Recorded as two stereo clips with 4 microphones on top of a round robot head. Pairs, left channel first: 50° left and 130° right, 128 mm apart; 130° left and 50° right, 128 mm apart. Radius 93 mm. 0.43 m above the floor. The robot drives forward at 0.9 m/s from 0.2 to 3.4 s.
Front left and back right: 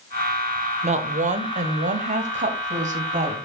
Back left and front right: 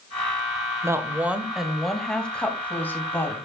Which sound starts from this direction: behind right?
A woman speaking, at 0.8 s.